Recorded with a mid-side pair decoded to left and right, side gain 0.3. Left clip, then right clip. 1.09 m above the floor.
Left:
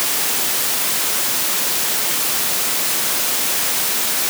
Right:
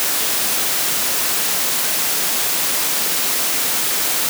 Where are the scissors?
No scissors in this recording.